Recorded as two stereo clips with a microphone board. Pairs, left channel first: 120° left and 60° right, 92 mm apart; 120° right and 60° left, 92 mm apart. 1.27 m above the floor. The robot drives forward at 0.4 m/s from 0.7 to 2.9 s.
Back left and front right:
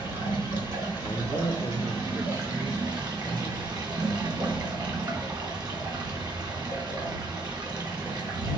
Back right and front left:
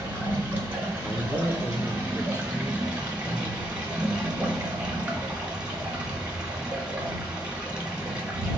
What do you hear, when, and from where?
0.0 s running water: 15° right, 3 m; by 8.6 s 20° right, 2.5 m
1.0 s a man speaking: 170° left, 0.6 m; by 4.7 s 175° left, 1.3 m